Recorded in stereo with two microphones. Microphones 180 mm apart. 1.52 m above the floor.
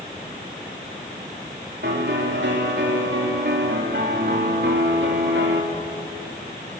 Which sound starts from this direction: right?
A piano, at 1.8 s.